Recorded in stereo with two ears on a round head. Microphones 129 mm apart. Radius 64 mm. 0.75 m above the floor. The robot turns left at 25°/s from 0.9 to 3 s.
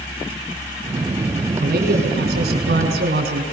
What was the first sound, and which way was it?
A man speaking, 65° right.